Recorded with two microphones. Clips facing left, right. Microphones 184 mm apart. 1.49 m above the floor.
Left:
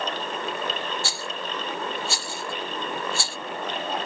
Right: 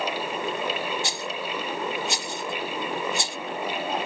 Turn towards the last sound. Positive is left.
turn(degrees=-20)  # may be behind; listen again after turning